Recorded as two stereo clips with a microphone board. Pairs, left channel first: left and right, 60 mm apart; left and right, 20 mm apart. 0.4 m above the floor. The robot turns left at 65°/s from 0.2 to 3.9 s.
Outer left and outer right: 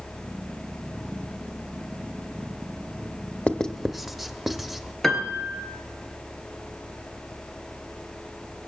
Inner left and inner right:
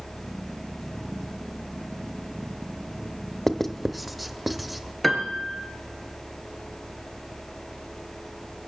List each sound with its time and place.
3.5 s writing: 20° left (ahead or behind), 0.8 m; by 4.9 s 5° right (ahead or behind), 0.8 m
5.0 s a piano: 5° left (ahead or behind), 2 m